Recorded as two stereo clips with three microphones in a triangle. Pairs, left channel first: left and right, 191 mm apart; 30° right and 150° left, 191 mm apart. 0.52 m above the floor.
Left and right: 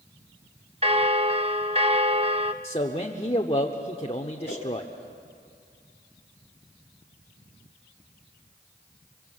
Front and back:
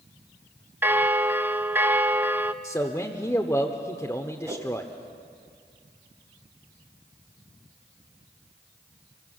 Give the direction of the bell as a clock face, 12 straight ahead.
4 o'clock.